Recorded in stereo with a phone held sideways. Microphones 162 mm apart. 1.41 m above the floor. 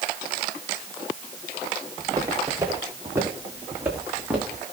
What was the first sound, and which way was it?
Footsteps, 20° right (ahead or behind).